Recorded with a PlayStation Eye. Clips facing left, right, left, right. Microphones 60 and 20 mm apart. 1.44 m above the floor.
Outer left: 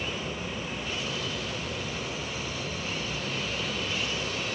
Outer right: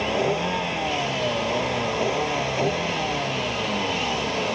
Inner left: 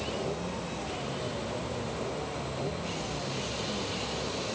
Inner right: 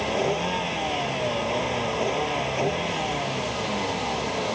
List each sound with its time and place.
0.0 s a vehicle: 75° right (ahead or behind)